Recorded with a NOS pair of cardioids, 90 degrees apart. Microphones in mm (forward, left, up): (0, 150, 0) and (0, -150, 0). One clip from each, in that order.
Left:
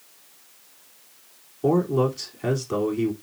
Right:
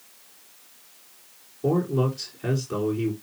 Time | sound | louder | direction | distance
1.6 | a man speaking | left 3 dB | 35° left | 4 m